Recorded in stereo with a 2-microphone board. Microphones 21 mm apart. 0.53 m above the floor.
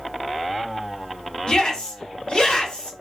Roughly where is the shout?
Left.